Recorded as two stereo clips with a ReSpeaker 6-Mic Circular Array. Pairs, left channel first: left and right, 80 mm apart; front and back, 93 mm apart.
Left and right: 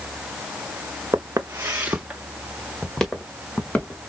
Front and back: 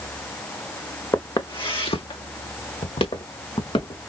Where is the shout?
I don't hear a shout.